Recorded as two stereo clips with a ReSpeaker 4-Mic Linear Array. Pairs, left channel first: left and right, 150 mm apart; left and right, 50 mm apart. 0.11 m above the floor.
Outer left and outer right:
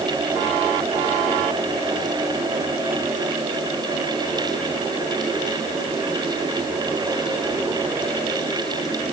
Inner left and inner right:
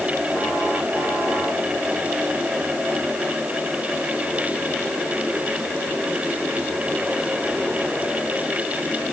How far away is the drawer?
No drawer in this recording.